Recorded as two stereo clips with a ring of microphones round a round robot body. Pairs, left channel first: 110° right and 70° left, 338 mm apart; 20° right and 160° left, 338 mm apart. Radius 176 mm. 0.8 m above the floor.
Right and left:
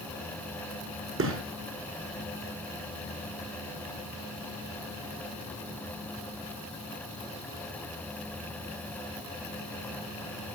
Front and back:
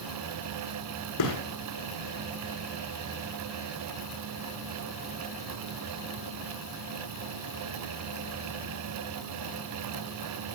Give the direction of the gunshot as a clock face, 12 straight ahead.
12 o'clock.